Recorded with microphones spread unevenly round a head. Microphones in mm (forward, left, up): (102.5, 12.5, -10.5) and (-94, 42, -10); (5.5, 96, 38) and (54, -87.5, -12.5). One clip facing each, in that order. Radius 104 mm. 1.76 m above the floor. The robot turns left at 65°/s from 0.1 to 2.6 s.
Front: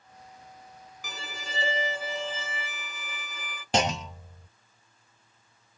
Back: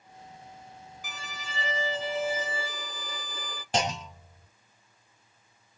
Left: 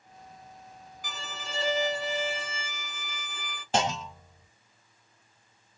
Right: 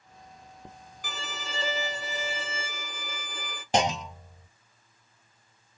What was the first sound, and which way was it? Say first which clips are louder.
A violin: front 4 dB, right 2 dB; 25° right.